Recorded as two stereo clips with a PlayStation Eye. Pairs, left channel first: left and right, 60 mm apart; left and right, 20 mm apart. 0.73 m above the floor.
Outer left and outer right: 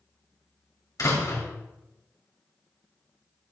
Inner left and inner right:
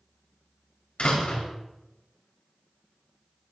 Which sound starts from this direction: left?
A door slam, at 1.0 s.